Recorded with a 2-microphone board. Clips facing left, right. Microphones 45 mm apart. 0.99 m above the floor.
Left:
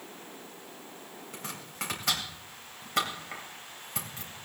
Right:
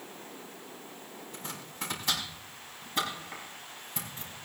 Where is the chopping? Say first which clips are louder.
Left 2 dB; 85° left, 3.5 m.